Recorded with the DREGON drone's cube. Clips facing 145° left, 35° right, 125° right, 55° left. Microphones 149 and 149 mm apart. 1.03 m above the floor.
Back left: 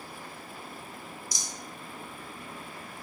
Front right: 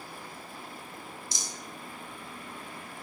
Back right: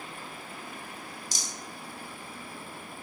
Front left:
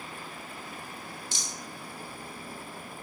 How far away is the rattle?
About 0.7 m.